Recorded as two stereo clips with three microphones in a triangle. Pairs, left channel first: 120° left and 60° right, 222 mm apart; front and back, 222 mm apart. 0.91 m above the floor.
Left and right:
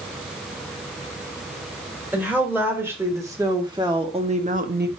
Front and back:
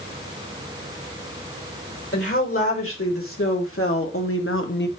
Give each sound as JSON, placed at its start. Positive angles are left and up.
{"t": 2.1, "sound": "a woman speaking", "azimuth_deg": 20, "distance_m": 3.0}